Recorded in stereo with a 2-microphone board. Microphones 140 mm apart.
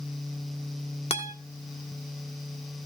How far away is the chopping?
I don't hear chopping.